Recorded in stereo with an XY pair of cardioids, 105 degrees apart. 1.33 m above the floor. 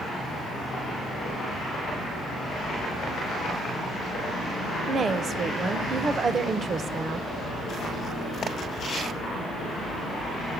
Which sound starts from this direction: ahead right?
A woman speaking, at 4.9 s.